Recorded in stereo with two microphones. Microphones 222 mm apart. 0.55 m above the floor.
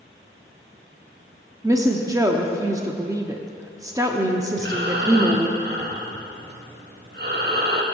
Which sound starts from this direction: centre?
A woman speaking, at 1.6 s.